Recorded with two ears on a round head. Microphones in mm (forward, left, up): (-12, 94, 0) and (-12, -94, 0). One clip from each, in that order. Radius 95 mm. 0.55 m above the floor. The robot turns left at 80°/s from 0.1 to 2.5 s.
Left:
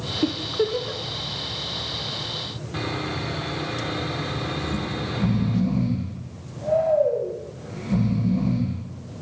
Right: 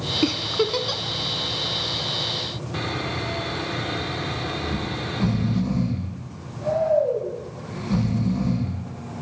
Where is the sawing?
10° right (ahead or behind), 1.6 m.